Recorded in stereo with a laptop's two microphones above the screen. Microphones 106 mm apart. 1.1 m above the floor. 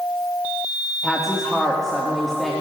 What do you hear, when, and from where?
1.0 s a woman speaking: 5° left (ahead or behind), 1.5 m